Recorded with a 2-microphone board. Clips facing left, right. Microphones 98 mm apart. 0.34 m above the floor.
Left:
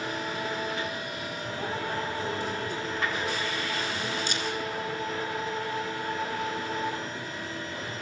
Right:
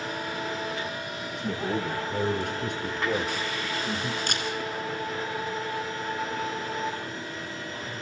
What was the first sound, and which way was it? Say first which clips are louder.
A man speaking: right 5 dB; 75° right (ahead or behind).